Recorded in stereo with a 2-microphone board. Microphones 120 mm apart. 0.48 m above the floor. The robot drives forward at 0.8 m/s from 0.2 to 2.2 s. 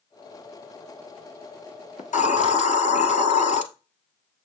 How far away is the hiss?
About 1.4 m.